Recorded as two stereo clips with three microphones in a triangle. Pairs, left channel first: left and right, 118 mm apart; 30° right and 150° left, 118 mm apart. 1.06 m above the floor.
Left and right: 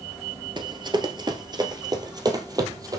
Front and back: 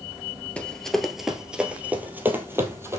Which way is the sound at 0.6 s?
105° right.